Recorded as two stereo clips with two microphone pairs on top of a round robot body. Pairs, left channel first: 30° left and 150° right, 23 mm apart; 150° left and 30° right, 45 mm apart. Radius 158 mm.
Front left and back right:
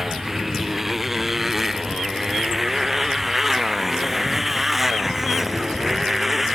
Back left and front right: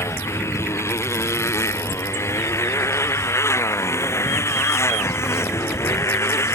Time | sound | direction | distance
0.0 | a motorcycle | 130° left | ?